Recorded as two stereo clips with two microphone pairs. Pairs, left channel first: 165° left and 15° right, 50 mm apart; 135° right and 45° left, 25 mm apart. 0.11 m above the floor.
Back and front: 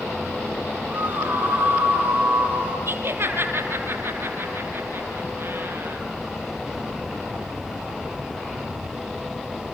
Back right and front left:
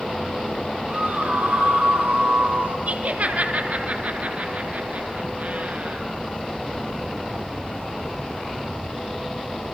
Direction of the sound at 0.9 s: 35° left.